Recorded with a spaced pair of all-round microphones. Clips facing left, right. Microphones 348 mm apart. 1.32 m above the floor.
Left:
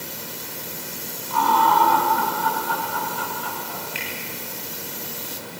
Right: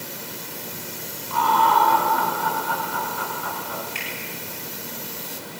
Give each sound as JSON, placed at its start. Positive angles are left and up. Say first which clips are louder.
{"t": 1.3, "sound": "laughter", "louder": "left 1 dB", "side_deg": 55, "distance_m": 8.0}
{"t": 4.0, "sound": "a finger snap", "louder": "left 1 dB", "side_deg": -60, "distance_m": 9.5}